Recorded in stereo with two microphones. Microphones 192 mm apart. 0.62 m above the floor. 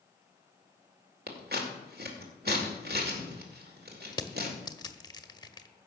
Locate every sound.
1.3 s scissors: 60° right (ahead or behind), 2 m
4.1 s crushing: 25° left (ahead or behind), 0.9 m